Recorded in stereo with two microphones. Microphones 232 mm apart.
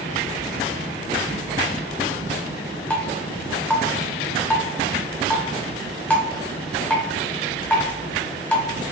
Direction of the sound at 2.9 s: 5° left (ahead or behind).